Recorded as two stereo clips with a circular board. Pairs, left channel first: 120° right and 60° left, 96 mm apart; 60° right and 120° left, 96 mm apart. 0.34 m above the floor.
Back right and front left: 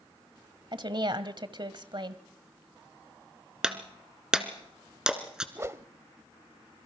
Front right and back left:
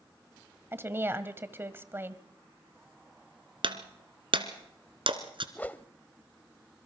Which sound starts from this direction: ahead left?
A woman speaking, at 0.7 s.